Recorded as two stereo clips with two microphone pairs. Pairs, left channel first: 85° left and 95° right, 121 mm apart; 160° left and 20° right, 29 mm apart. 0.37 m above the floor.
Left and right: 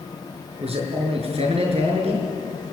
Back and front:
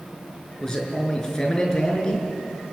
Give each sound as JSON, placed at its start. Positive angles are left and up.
{"t": 0.6, "sound": "a man speaking", "azimuth_deg": -130, "distance_m": 5.5}